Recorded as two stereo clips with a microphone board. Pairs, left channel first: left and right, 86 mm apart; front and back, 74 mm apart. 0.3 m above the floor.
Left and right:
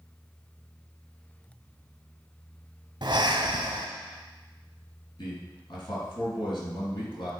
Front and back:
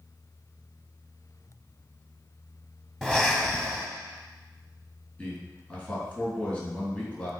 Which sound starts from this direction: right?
Breathing, at 3.0 s.